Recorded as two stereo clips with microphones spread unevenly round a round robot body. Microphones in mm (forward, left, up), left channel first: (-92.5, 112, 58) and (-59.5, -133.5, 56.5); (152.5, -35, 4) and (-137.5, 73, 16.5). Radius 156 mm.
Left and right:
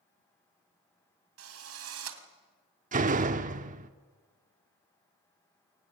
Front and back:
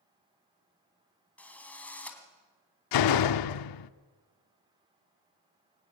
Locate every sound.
1.4 s a drill: 105° right, 2.5 m
2.9 s a door slam: 20° right, 0.8 m